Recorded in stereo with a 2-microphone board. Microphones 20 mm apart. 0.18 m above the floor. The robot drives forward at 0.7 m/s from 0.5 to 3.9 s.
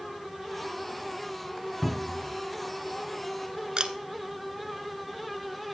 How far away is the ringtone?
No ringtone in this recording.